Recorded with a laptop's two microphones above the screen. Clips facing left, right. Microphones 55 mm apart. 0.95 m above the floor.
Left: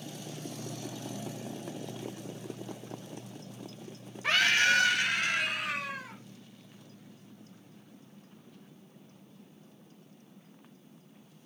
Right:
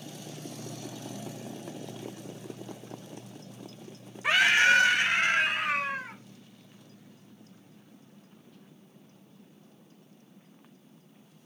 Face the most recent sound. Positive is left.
turn(degrees=-40)  # may be behind; listen again after turning